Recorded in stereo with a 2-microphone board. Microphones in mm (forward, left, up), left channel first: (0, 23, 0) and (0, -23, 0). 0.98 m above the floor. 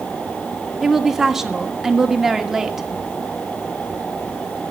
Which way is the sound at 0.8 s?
10° right (ahead or behind).